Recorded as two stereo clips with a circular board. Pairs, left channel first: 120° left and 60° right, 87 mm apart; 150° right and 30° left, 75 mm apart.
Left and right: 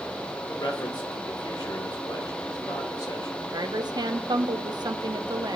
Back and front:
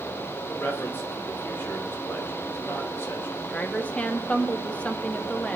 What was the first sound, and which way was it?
A man speaking, 150° left.